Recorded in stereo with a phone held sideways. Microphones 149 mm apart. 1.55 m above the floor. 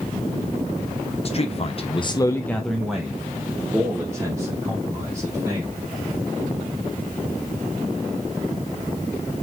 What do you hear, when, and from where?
1.2 s a man speaking: 40° left (ahead or behind), 0.8 m; by 5.8 s 20° right (ahead or behind), 3 m